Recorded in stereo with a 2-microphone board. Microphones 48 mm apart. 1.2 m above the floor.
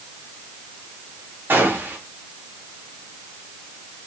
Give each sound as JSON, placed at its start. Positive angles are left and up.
{"t": 1.5, "sound": "a gunshot", "side_deg": -50, "distance_m": 2.0}